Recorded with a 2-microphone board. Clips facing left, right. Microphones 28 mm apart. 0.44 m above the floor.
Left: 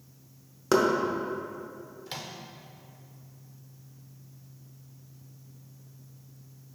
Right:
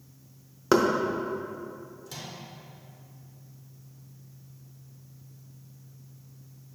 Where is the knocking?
10° right (ahead or behind), 0.6 m.